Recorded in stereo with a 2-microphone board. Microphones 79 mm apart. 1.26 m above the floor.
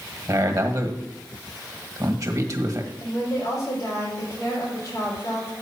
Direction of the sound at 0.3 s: 45° right (ahead or behind).